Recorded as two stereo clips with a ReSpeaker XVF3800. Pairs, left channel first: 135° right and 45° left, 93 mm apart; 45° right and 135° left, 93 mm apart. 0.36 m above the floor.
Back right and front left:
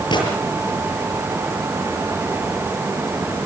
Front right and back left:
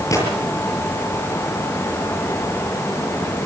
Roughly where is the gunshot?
Right.